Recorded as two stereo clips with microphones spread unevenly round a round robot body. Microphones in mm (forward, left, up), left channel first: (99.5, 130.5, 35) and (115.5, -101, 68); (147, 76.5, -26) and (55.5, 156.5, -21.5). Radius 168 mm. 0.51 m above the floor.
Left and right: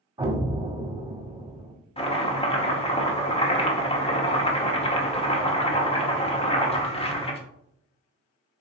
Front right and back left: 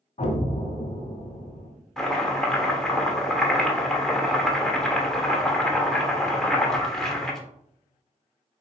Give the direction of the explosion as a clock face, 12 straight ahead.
12 o'clock.